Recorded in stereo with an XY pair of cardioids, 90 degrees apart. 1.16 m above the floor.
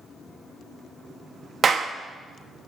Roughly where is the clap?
Ahead right.